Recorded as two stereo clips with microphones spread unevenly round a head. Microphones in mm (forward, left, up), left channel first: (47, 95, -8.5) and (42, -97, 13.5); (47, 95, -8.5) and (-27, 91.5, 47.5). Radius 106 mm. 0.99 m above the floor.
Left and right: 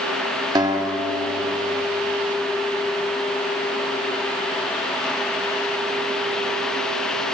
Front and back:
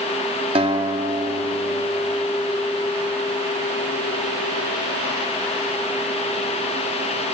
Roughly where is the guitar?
Behind.